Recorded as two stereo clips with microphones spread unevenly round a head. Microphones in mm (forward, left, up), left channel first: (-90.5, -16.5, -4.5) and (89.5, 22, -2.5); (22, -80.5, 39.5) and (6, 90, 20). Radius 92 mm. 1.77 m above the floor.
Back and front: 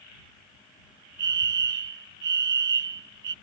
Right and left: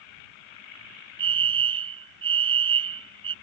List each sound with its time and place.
1.2 s a fire alarm: 40° left